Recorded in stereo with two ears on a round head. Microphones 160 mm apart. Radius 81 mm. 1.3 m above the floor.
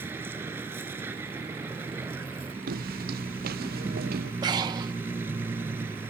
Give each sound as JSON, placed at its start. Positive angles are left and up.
{"t": 0.0, "sound": "a vehicle", "side_deg": -10}
{"t": 2.7, "sound": "footsteps", "side_deg": -55}
{"t": 4.4, "sound": "breathing", "side_deg": -20}